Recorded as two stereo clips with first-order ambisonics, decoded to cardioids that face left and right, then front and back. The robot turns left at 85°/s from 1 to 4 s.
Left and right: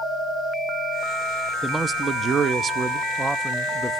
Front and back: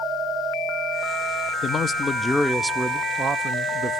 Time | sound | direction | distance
1.6 | a man speaking | 15° right | 0.5 m